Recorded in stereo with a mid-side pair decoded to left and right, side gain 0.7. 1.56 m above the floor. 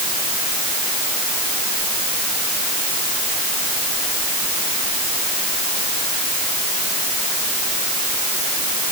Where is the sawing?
No sawing in this recording.